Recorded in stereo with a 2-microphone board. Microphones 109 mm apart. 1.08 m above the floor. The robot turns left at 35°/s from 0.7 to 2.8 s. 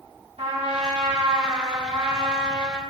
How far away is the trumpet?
About 1.3 m.